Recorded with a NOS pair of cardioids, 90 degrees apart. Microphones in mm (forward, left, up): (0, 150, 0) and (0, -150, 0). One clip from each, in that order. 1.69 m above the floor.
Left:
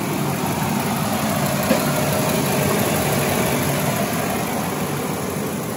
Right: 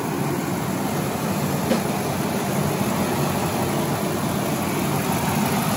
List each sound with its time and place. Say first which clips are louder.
1.7 s a snare drum: left 4 dB; 45° left, 2.5 m